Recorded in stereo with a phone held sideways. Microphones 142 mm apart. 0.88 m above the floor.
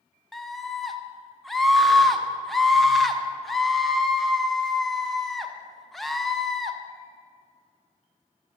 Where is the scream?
Centre (ahead or behind), 0.5 m.